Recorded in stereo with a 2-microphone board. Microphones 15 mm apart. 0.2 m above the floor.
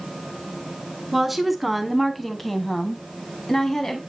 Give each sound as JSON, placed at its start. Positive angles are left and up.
{"t": 1.1, "sound": "a woman speaking", "side_deg": -10, "distance_m": 1.6}